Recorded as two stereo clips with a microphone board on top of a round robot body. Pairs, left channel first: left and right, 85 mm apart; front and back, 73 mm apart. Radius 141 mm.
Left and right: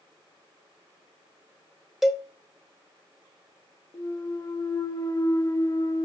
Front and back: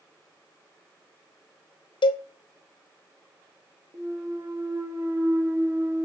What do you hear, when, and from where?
2.0 s a cowbell: 5° right, 0.5 m
3.9 s a clunk: 130° left, 1.2 m